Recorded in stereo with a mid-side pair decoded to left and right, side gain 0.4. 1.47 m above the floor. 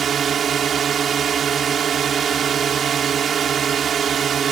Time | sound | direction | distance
0.0 | a drone | 55° right | ?